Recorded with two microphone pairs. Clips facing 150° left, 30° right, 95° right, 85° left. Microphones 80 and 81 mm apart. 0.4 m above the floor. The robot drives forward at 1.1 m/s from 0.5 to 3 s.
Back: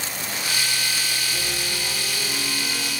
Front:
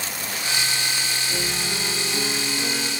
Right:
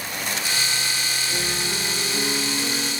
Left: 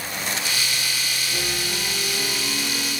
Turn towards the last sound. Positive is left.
turn(degrees=-65)